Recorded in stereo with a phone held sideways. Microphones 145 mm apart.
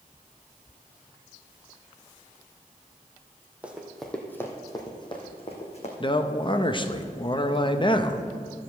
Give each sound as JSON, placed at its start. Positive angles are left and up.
{"t": 3.6, "sound": "running footsteps", "side_deg": -10, "distance_m": 1.7}
{"t": 6.0, "sound": "a man speaking", "side_deg": 35, "distance_m": 0.8}